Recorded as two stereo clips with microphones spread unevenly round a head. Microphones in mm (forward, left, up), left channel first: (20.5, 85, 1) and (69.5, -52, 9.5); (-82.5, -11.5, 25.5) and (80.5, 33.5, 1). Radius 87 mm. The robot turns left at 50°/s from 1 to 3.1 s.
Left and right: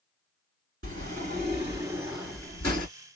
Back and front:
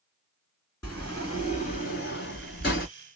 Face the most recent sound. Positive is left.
turn(degrees=155)